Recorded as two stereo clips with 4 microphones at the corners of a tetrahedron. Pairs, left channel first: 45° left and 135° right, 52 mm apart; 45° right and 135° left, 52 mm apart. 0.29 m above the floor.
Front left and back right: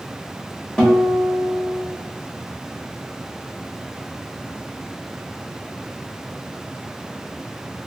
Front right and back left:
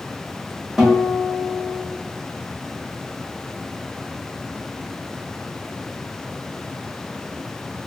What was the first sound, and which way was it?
A guitar, 85° left.